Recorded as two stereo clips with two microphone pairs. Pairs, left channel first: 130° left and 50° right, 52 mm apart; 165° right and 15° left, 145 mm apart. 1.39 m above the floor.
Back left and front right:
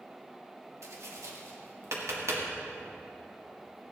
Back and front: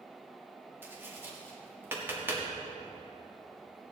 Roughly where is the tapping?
Ahead right.